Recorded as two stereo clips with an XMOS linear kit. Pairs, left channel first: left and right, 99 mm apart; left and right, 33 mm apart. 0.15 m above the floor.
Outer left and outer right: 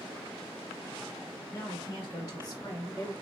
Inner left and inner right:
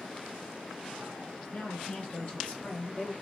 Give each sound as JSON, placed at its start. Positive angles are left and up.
{"t": 1.5, "sound": "a woman speaking", "side_deg": 35, "distance_m": 2.0}